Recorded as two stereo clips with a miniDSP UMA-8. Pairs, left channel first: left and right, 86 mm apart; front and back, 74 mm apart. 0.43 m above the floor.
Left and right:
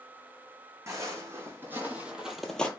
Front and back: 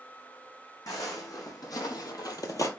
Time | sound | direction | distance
0.9 | footsteps | 35° right | 1.4 m